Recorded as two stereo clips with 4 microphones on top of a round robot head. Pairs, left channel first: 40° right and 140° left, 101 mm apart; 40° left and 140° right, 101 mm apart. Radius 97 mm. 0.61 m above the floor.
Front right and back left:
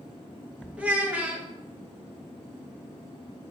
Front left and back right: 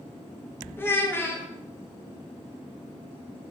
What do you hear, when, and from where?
0.8 s a child speaking: 80° left, 0.8 m